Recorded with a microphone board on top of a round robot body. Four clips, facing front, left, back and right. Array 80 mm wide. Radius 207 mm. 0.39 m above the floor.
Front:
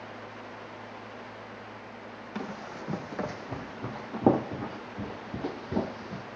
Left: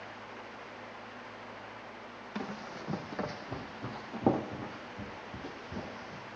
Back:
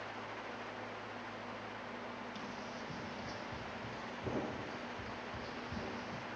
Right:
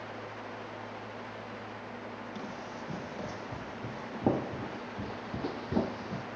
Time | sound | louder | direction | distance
2.4 | running footsteps | even, front 7 dB | 40° left | 1.9 m